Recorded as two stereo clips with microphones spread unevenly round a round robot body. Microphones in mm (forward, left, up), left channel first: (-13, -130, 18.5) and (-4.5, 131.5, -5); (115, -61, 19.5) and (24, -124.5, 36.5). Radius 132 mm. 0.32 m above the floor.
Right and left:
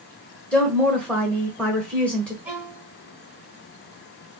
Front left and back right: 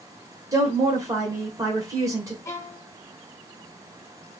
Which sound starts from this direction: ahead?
A violin, at 2.5 s.